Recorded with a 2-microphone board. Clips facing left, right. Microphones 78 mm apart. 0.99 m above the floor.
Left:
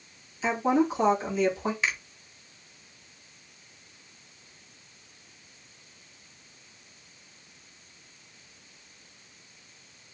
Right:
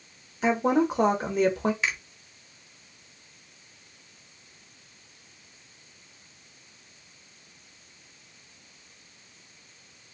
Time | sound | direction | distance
0.4 | a woman speaking | 55° right (ahead or behind) | 1.2 m
1.8 | a finger snap | centre (ahead or behind) | 1.2 m